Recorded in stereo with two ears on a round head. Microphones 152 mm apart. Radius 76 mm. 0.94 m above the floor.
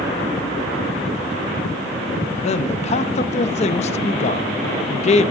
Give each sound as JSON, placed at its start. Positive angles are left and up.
{"t": 2.4, "sound": "a man speaking", "side_deg": 40, "distance_m": 0.7}